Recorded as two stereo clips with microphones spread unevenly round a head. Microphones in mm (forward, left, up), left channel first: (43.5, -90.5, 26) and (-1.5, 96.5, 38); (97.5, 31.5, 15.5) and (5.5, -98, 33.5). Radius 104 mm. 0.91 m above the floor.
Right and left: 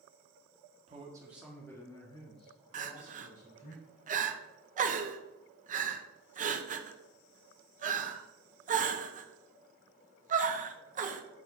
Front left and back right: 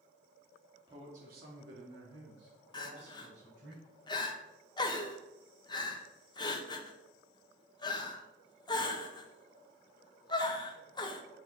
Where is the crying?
85° left, 0.8 m.